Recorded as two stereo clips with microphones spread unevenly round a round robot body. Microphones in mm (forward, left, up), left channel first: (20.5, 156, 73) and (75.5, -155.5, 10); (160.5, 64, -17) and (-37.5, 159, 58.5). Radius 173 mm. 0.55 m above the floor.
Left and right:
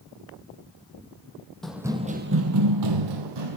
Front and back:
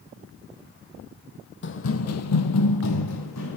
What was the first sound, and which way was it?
Running footsteps, 15° left.